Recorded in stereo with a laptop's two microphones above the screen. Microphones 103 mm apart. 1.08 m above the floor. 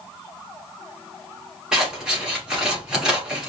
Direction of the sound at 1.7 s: 5° right (ahead or behind).